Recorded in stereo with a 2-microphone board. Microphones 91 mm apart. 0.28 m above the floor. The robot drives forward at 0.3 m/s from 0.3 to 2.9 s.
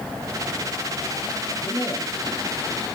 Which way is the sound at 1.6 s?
40° left (ahead or behind).